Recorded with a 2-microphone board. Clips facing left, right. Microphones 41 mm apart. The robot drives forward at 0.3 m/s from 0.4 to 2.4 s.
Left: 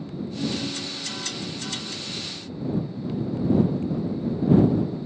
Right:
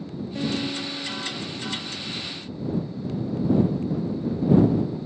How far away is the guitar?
About 1.1 m.